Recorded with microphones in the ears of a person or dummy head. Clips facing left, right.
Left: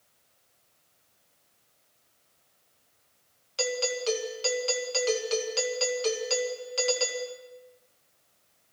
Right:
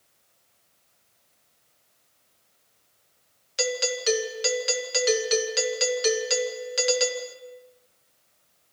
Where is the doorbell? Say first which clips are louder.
Right 2 dB; 25° right (ahead or behind), 2 m.